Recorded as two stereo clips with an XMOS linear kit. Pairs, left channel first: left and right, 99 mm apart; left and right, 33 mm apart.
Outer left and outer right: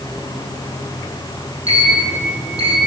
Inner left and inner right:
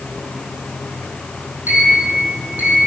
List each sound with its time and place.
1.7 s a sliding door: 75° right (ahead or behind), 2.5 m